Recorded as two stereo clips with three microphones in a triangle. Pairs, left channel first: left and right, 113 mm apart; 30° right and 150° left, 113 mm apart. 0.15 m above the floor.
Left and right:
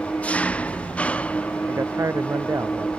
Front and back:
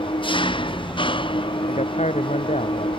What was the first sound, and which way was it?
An engine running, 10° left.